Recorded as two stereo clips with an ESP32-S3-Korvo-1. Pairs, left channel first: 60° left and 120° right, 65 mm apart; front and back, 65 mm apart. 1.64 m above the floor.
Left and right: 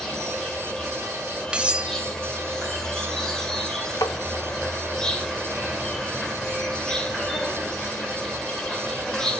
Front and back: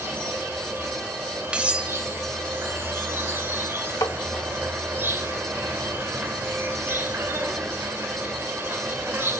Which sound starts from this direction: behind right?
Cutlery clinking, at 1.5 s.